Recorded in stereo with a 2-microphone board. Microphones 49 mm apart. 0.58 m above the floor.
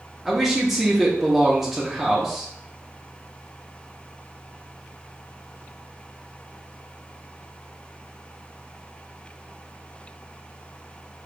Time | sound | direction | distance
0.2 | a man speaking | 5° right (ahead or behind) | 0.7 m